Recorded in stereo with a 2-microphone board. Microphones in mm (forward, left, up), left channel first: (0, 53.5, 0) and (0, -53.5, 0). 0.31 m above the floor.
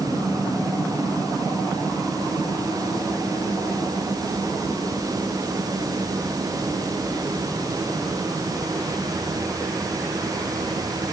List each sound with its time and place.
Only background noise.